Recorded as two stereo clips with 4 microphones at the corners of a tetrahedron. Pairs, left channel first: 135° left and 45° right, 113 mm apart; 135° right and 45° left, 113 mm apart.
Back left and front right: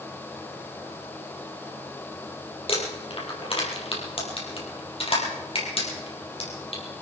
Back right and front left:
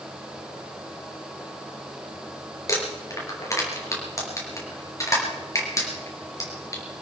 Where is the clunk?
I don't hear a clunk.